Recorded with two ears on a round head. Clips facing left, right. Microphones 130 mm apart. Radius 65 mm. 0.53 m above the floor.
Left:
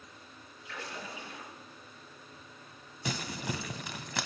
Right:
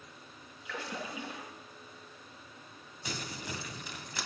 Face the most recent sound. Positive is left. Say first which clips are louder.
# left 5 dB
turn(degrees=55)  # may be behind; listen again after turning